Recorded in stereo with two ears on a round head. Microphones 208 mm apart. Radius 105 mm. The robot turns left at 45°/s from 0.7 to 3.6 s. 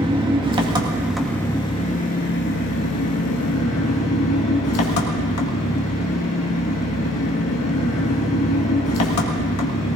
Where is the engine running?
160° right, 1.6 m; by 10.0 s 70° left, 1.6 m.